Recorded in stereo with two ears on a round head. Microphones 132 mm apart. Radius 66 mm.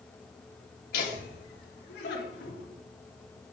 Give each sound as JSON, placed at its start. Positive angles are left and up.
{"t": 0.9, "sound": "laughter", "side_deg": 70, "distance_m": 3.0}